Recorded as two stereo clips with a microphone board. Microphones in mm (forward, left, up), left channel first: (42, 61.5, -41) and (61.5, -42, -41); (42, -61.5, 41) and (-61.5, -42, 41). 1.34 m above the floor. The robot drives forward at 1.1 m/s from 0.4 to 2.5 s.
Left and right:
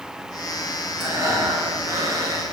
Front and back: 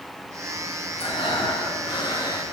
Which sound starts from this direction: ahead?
Breathing, at 1.0 s.